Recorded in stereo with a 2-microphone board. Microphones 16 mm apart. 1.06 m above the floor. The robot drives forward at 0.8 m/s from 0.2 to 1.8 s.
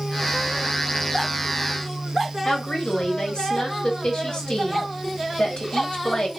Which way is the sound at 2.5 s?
65° left (ahead or behind).